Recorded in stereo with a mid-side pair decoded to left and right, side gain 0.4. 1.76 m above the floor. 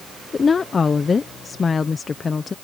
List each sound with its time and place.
0.3 s a woman speaking: 35° left